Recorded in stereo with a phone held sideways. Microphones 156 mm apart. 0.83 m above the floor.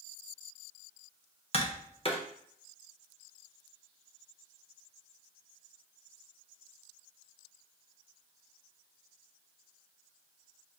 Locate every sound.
1.5 s tapping: 35° left (ahead or behind), 0.6 m